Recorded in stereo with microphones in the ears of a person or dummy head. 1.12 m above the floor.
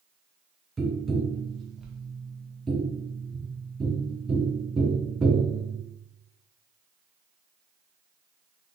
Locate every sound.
0.8 s tapping: 5° right (ahead or behind), 0.6 m